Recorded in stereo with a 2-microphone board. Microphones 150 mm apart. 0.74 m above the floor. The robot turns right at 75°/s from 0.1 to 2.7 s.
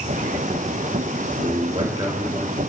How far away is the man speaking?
About 2.5 m.